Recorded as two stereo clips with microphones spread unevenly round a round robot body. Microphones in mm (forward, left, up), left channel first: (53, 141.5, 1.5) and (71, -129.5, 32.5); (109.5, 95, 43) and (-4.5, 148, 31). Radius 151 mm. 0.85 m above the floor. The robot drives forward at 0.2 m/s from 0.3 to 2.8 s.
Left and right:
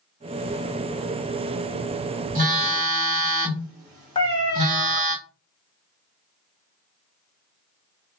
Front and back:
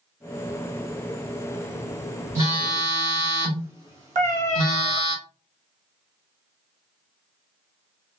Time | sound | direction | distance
2.4 | a phone buzzing | 145° right | 1.0 m
4.2 | a cat meowing | 170° left | 0.6 m